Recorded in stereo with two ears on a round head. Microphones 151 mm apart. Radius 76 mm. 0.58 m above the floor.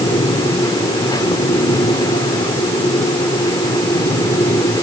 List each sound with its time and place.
Only background noise.